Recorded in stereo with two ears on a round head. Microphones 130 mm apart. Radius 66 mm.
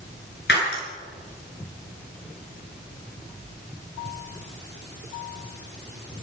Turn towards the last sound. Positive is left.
turn(degrees=85)